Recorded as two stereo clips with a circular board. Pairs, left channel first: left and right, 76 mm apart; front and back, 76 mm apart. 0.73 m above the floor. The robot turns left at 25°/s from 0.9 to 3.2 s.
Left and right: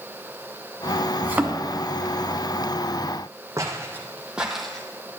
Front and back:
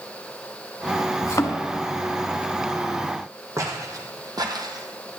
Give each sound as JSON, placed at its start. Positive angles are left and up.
{"t": 1.2, "sound": "a thud", "azimuth_deg": -25, "distance_m": 0.8}
{"t": 3.6, "sound": "footsteps", "azimuth_deg": -135, "distance_m": 1.7}